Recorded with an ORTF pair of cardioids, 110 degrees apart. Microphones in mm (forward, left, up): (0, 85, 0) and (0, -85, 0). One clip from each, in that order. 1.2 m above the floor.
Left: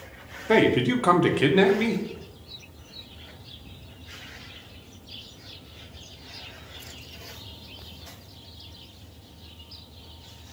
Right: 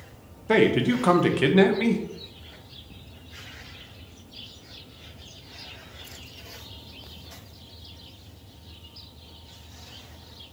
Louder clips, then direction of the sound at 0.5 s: Even; straight ahead.